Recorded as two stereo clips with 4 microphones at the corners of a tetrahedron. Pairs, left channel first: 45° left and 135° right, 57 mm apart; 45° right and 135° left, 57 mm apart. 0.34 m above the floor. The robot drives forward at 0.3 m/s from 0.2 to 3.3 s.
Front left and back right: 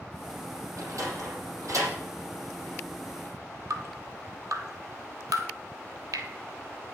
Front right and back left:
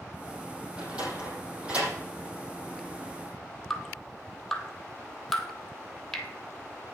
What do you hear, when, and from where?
0.8 s a sliding door: 155° right, 5 m
3.7 s dripping: 125° right, 1.6 m